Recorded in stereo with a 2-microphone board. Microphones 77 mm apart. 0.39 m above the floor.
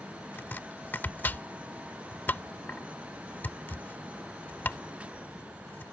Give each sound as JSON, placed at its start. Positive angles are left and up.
{"t": 0.4, "sound": "chopping", "side_deg": 25}